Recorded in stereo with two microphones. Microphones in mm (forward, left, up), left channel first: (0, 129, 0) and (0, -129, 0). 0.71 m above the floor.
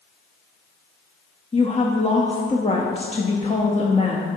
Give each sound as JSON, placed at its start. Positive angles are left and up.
{"t": 1.5, "sound": "a woman speaking", "side_deg": 25, "distance_m": 0.6}